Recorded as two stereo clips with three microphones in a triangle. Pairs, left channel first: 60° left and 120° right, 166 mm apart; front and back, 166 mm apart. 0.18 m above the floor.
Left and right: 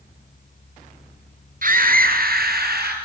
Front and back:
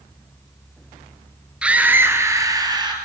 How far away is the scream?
About 2.5 m.